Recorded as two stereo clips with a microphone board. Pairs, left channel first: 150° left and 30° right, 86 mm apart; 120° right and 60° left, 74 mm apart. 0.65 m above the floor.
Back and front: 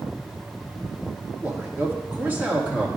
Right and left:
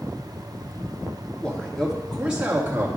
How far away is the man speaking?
About 1.3 m.